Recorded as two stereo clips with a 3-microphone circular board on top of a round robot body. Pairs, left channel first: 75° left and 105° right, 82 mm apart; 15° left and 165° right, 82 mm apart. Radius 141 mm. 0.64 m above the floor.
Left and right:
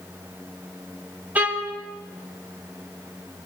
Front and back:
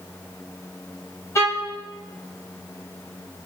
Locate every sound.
1.4 s a violin: 35° right, 3.5 m